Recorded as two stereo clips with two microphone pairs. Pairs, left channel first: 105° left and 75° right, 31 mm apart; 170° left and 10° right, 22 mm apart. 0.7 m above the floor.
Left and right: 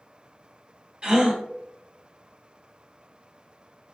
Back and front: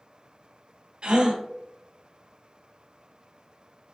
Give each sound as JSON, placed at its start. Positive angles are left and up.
{"t": 1.0, "sound": "a gasp", "azimuth_deg": -25, "distance_m": 1.3}